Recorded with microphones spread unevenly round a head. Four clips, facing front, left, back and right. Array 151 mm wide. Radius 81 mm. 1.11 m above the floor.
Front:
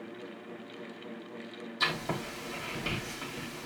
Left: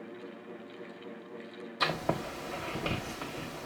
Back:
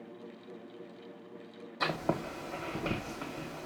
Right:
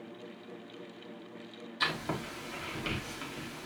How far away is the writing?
About 0.9 m.